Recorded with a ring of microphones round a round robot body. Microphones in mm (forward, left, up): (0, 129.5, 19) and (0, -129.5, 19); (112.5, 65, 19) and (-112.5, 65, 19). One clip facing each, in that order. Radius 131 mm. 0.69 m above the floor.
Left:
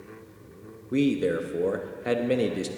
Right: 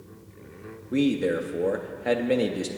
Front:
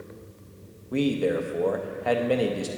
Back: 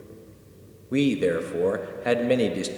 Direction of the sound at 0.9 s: 170° left.